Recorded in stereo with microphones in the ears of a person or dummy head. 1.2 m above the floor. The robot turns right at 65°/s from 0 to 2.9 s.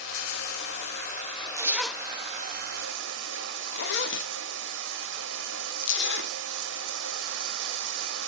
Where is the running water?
65° left, 0.8 m; by 8.3 s 105° right, 0.8 m.